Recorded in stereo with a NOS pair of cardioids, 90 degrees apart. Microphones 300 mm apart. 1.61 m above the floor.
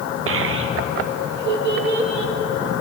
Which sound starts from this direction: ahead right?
A child speaking, at 0.3 s.